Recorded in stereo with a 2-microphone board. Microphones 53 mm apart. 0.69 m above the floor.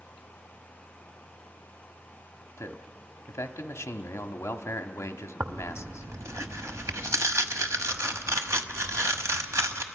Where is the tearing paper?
70° right (ahead or behind), 1.1 m.